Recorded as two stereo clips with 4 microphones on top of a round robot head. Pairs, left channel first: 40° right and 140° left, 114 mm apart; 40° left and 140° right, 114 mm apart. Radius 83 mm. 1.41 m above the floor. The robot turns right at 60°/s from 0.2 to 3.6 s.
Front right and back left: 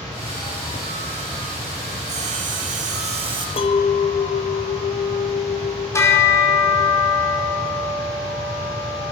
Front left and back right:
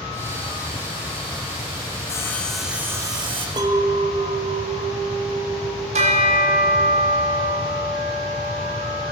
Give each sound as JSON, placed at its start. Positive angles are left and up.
{"t": 2.1, "sound": "sawing", "azimuth_deg": 105, "distance_m": 1.7}
{"t": 3.6, "sound": "a clink", "azimuth_deg": -85, "distance_m": 1.3}
{"t": 5.9, "sound": "a bell", "azimuth_deg": -110, "distance_m": 4.5}